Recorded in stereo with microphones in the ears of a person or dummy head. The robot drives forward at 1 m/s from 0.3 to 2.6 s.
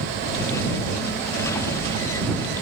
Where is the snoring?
I don't hear snoring.